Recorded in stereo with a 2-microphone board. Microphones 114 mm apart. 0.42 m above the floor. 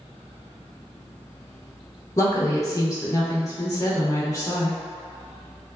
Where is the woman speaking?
25° left (ahead or behind), 0.9 m.